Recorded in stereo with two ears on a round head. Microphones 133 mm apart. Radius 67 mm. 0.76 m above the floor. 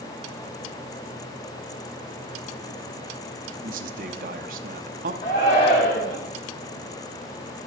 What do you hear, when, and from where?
3.6 s a man speaking: 60° right (ahead or behind), 0.9 m
5.2 s a shout: 45° left (ahead or behind), 6 m